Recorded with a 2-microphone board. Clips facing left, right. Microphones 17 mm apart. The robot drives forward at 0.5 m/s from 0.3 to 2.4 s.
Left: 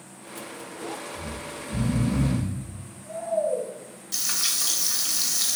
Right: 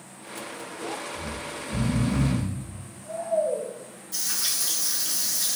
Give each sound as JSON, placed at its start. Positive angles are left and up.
{"t": 1.1, "sound": "snoring", "side_deg": -45, "distance_m": 0.6}
{"t": 4.1, "sound": "frying", "side_deg": 45, "distance_m": 1.0}